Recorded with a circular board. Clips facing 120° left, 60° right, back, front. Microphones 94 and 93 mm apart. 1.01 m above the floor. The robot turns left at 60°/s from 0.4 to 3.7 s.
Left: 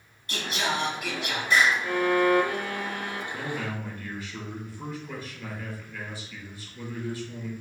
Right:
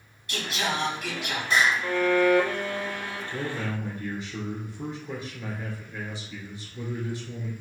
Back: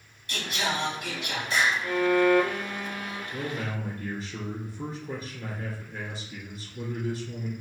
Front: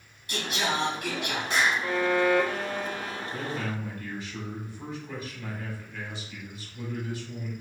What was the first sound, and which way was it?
Singing, 80° left.